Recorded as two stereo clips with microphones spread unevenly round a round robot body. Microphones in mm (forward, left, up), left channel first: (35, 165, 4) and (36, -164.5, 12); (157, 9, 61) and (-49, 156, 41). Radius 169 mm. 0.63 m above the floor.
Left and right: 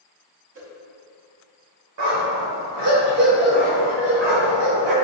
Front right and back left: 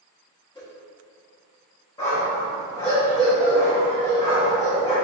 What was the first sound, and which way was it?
A whoosh, 105° right.